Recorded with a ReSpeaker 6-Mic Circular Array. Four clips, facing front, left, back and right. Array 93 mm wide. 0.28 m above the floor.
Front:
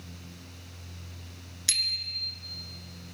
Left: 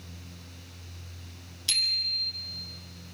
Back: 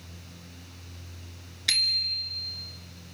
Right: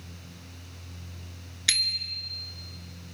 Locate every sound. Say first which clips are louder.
1.7 s a bicycle bell: right 3 dB, back 6 dB; 115° right, 2.5 m